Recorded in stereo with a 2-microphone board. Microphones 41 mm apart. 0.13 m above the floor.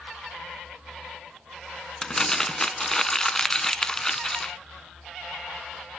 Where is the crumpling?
15° left (ahead or behind), 0.5 m.